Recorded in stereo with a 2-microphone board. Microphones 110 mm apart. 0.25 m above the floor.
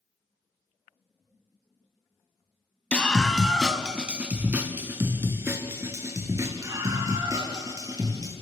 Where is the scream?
10° left (ahead or behind), 1.9 m; by 8.3 s 30° right (ahead or behind), 7 m.